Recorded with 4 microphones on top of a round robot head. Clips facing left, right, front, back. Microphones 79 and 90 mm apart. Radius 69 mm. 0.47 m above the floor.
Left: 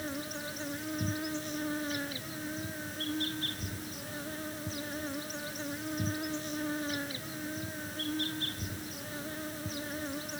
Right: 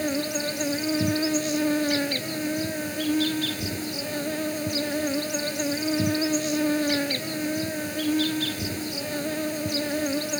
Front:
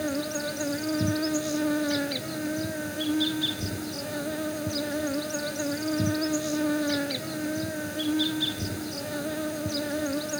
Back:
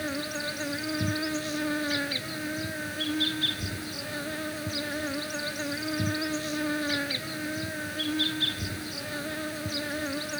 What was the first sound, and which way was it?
An insect, 65° right.